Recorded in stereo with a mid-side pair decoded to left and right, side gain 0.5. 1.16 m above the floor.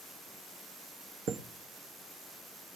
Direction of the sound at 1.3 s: 60° right.